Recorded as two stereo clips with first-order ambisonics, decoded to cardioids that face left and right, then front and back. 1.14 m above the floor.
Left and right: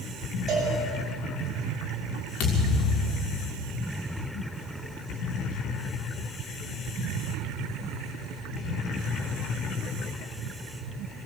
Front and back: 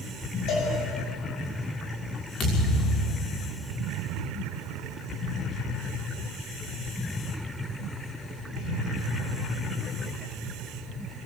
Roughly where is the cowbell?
Ahead right.